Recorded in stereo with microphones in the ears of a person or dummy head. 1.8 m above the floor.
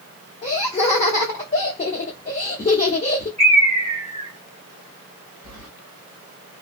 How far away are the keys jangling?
About 1.4 m.